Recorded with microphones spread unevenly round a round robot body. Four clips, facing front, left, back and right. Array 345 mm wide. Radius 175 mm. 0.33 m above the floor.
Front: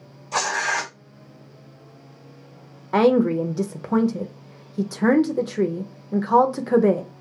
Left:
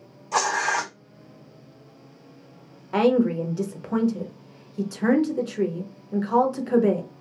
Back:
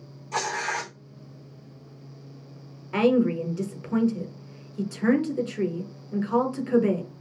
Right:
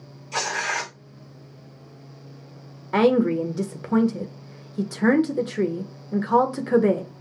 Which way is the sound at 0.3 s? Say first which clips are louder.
Left 4 dB, front 4 dB; 80° left.